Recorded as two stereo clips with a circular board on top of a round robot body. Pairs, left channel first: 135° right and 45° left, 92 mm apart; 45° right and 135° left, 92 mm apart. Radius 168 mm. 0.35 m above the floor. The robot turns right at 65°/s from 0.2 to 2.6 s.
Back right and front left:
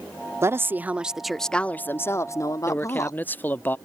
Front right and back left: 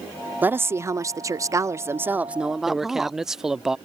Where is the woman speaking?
80° left; by 3.2 s 140° right.